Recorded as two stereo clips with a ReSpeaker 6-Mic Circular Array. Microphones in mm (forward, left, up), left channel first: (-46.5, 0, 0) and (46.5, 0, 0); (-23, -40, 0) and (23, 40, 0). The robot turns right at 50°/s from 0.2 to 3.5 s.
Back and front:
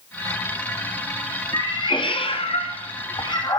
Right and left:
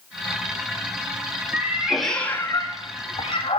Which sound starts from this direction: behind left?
A cat meowing, at 1.5 s.